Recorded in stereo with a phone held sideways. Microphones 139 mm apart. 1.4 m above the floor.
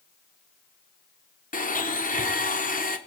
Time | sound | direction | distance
1.5 | a blender | 80° left | 0.8 m